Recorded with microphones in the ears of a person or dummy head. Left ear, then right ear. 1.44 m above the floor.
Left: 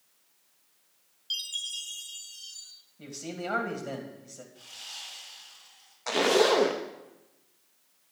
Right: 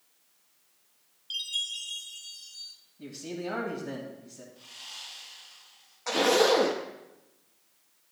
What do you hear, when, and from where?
1.3 s a chime: 25° left (ahead or behind), 0.5 m
3.0 s a man speaking: 60° left (ahead or behind), 2.0 m
4.5 s sawing: 80° left, 4.5 m
6.1 s a zipper: 5° left (ahead or behind), 0.5 m